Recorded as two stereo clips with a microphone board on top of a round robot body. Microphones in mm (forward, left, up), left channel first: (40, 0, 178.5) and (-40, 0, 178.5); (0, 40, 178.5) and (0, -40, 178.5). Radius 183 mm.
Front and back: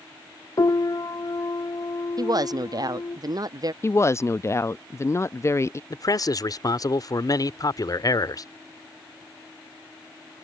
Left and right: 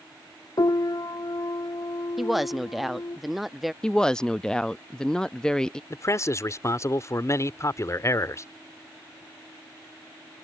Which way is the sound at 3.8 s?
15° left.